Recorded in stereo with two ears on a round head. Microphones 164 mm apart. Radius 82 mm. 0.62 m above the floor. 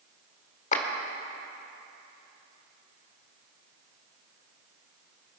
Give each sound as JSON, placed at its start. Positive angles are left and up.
{"t": 0.7, "sound": "a clap", "side_deg": 40, "distance_m": 1.4}